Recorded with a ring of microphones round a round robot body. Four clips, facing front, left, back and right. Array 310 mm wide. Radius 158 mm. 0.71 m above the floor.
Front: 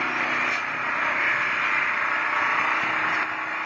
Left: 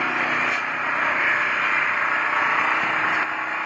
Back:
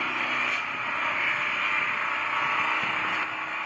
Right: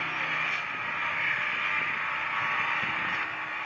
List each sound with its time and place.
0.0 s an engine running: 70° left, 1.2 m